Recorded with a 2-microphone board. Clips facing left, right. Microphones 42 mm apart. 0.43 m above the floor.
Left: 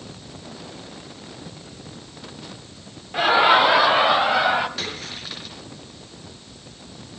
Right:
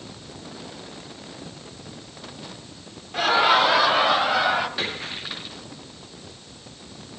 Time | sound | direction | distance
3.1 | laughter | 15° left (ahead or behind) | 0.9 m
4.8 | a splash | 15° right (ahead or behind) | 6 m